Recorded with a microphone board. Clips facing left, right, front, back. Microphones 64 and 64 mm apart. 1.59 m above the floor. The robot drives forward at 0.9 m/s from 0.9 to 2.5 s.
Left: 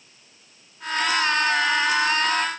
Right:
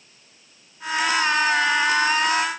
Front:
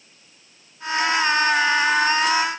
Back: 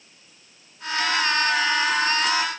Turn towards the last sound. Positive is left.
No sound to turn to.